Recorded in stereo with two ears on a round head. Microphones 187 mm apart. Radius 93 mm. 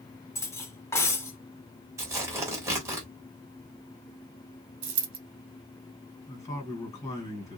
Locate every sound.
0.3 s cutlery clinking: 15° left (ahead or behind), 0.7 m
2.0 s tearing paper: 15° right (ahead or behind), 1.4 m
4.8 s a dropped coin: 60° right (ahead or behind), 1.2 m
6.3 s a man speaking: 20° left (ahead or behind), 1.9 m